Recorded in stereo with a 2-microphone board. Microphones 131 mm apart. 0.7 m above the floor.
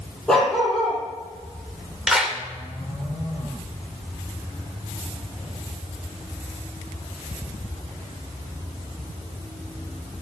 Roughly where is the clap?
Centre.